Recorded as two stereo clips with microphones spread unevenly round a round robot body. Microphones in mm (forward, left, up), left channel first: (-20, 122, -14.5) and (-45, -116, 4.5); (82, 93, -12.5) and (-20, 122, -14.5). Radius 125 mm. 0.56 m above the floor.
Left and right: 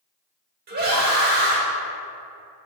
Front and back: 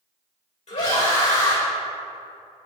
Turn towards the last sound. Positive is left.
turn(degrees=-40)